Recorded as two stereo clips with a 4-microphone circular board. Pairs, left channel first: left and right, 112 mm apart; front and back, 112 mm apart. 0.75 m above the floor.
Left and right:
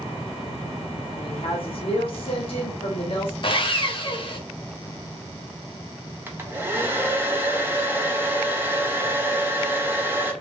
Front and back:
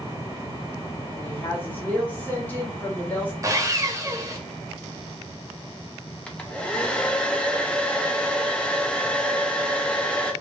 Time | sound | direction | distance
1.2 | a woman speaking | 75° left | 1.5 m
3.4 | sawing | 125° left | 0.7 m
6.3 | a hair dryer | 60° right | 0.6 m